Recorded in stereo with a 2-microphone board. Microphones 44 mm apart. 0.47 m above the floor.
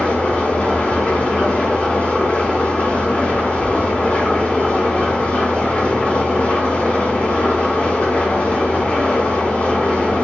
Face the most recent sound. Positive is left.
turn(degrees=35)  # may be behind; listen again after turning